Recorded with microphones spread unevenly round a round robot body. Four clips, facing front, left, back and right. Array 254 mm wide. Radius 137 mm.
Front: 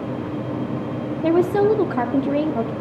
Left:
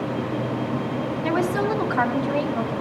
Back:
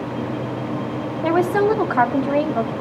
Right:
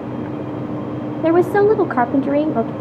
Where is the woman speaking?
75° right, 1.0 m.